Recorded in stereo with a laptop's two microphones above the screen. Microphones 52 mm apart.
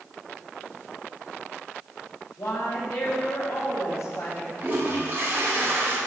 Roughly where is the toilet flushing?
Right.